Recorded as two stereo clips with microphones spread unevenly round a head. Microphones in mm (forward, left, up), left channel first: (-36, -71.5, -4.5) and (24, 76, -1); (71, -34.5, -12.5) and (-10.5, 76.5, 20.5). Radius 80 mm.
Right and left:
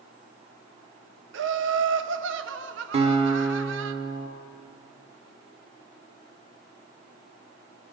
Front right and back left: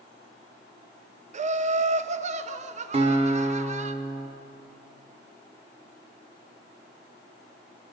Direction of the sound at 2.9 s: 115° left.